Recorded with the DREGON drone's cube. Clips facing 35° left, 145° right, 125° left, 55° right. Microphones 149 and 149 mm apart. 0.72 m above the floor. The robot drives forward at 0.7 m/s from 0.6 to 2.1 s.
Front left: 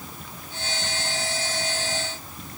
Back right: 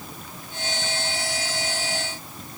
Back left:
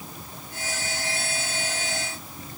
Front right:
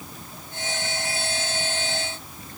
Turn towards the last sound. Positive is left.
No sound to turn to.